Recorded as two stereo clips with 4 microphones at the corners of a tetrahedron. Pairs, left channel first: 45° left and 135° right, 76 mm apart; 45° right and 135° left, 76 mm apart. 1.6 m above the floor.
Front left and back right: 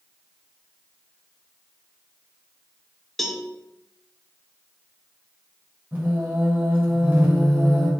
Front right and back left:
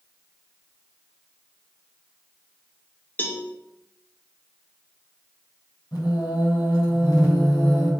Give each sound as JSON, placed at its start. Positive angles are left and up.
{"t": 3.2, "sound": "a cowbell", "azimuth_deg": -40, "distance_m": 1.0}
{"t": 5.9, "sound": "singing", "azimuth_deg": -75, "distance_m": 3.5}